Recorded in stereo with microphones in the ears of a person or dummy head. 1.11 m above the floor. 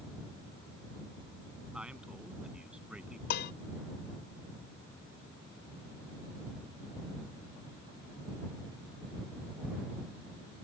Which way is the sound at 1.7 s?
5° right (ahead or behind).